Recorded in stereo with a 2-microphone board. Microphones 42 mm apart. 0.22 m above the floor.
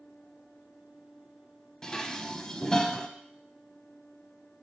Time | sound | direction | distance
1.8 | dishes clattering | 15° left (ahead or behind) | 0.7 m